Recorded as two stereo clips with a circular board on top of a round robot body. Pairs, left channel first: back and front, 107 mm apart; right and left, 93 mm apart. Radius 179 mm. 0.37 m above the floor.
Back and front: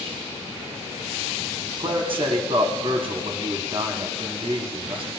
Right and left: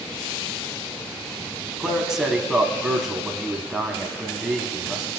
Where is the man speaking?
5° left, 1.1 m.